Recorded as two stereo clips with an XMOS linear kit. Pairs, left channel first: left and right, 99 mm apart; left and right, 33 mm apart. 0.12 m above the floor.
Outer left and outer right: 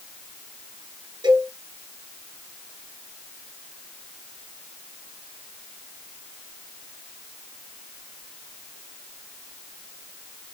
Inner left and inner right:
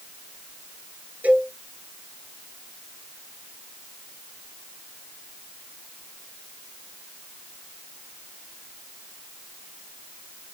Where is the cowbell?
45° right (ahead or behind), 1.9 m.